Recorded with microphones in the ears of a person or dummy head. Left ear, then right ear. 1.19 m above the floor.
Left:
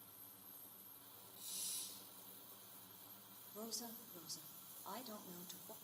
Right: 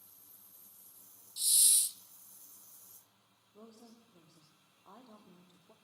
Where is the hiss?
50° right (ahead or behind), 1.1 m.